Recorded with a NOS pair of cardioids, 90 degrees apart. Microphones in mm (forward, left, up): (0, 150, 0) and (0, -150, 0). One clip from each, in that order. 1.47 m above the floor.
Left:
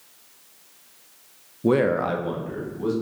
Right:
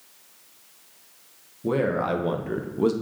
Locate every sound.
1.6 s a man speaking: 30° left, 0.5 m; by 2.9 s 55° right, 0.8 m